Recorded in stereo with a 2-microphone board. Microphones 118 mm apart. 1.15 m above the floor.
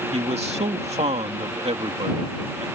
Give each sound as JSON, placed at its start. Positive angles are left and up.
{"t": 0.1, "sound": "a man speaking", "side_deg": -65}